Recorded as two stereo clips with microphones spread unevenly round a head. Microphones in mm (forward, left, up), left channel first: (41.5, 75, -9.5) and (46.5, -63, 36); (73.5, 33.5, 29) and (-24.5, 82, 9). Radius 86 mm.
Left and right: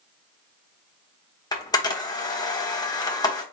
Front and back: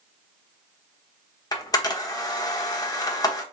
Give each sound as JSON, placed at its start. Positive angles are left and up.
{"t": 1.5, "sound": "a camera shutter", "azimuth_deg": 25, "distance_m": 1.1}